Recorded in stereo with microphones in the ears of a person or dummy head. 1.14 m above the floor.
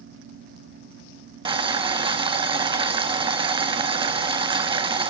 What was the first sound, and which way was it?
Boiling, 30° right (ahead or behind).